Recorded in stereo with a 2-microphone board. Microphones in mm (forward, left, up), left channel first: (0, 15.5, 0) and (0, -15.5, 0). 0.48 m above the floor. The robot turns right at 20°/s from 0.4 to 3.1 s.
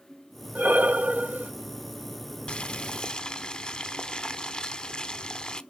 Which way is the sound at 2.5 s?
35° left (ahead or behind).